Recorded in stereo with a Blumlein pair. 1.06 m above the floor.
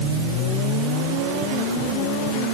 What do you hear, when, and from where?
Only background noise.